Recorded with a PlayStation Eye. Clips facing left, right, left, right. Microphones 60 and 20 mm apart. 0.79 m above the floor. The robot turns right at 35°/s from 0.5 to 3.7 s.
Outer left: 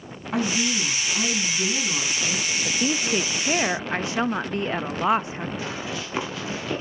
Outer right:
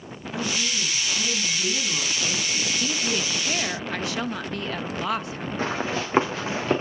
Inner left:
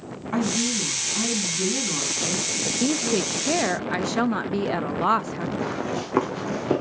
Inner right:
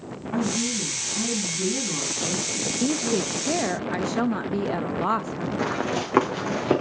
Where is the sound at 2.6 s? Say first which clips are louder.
Outer left 5 dB, inner left 1 dB; 25° left (ahead or behind), 0.6 m.